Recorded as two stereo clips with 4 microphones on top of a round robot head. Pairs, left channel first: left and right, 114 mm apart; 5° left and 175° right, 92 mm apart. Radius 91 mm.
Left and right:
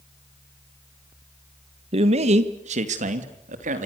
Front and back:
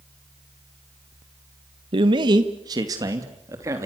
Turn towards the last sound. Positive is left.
turn(degrees=-105)